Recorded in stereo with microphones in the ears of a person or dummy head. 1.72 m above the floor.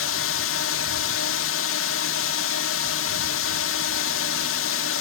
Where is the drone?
65° left (ahead or behind).